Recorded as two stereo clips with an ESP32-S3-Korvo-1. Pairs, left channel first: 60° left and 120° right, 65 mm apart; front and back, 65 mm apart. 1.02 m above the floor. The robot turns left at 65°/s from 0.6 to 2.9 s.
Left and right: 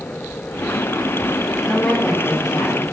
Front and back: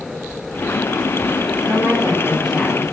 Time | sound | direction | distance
1.7 | a woman speaking | 155° left | 2.5 m